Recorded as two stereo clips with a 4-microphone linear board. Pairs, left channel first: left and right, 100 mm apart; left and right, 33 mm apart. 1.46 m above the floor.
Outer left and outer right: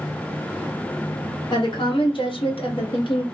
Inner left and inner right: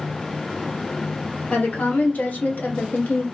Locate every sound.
1.5 s a woman speaking: 50° left (ahead or behind), 1.3 m; by 3.2 s 55° left (ahead or behind), 0.7 m